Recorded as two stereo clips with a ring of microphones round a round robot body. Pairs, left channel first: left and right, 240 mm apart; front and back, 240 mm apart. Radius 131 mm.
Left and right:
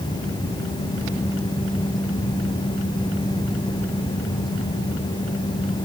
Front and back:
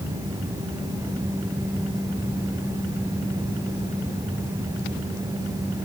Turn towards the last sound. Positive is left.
No sound to turn to.